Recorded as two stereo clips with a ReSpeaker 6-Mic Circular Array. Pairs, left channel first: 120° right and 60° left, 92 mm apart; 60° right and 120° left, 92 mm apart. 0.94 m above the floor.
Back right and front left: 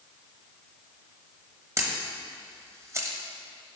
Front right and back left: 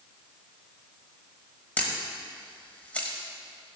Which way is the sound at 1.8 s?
10° left.